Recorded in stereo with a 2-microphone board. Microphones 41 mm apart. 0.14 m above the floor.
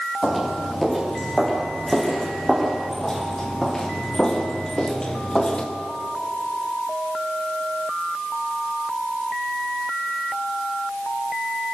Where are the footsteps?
Centre (ahead or behind), 6.5 m; by 5.7 s 25° left (ahead or behind), 2.5 m.